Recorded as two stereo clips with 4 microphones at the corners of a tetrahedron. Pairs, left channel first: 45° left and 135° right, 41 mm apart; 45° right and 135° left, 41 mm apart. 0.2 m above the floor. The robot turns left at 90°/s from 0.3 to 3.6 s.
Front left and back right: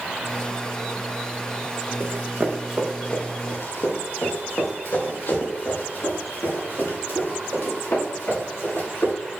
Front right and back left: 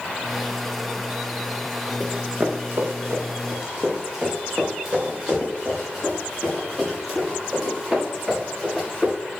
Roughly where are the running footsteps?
Behind right.